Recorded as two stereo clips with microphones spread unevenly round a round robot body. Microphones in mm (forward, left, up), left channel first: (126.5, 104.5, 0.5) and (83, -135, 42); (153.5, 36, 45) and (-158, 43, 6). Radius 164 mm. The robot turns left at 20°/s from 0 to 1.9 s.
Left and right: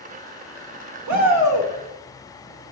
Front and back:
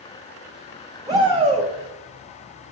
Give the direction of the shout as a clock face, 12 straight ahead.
3 o'clock.